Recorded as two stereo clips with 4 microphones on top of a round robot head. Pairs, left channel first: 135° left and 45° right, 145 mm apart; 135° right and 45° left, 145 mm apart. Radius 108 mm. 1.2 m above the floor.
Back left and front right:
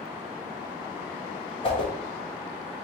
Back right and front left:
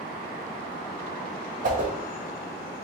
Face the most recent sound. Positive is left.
turn(degrees=80)